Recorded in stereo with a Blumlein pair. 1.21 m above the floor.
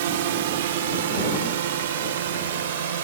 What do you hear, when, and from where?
0.0 s a drone: 55° right; by 3.0 s 60° right